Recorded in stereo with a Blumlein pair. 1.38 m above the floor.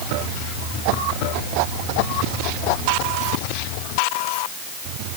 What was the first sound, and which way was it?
Only background noise.